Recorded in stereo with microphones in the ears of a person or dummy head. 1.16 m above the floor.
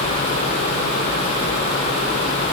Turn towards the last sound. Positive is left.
No sound to turn to.